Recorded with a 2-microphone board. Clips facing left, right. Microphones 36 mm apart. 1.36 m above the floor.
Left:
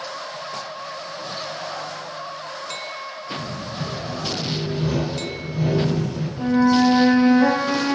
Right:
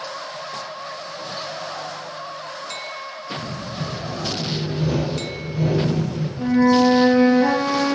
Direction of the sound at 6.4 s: 70° left (ahead or behind).